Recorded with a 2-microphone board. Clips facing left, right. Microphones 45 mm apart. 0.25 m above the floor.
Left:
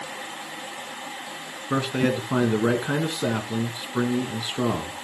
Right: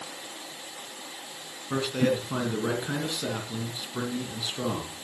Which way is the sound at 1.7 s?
20° left (ahead or behind).